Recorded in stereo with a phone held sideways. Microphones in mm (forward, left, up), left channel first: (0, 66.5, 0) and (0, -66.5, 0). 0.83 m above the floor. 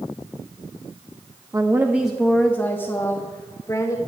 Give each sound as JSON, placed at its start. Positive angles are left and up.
{"t": 1.5, "sound": "a woman speaking", "side_deg": -25, "distance_m": 0.7}